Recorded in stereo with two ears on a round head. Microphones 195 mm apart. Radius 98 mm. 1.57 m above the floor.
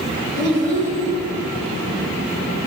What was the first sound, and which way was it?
A child speaking, 45° right (ahead or behind).